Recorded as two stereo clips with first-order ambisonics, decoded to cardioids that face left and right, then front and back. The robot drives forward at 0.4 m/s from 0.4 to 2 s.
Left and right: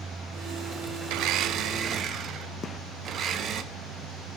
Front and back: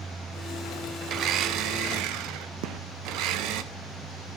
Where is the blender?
125° right, 0.5 m; by 3.6 s 145° right, 0.8 m.